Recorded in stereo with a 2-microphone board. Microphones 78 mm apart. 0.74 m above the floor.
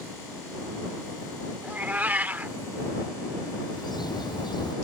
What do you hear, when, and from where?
1.6 s a cat meowing: 20° right (ahead or behind)
3.7 s a bird: 65° left (ahead or behind)